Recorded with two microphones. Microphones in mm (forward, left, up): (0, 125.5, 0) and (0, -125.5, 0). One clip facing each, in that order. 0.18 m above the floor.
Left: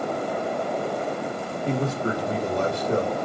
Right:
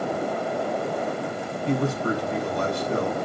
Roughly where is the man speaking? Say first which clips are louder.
Right 2 dB; left.